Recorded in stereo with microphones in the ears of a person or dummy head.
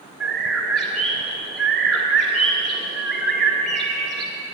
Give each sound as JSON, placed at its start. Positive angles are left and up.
{"t": 0.2, "sound": "a bird", "side_deg": 0, "distance_m": 1.7}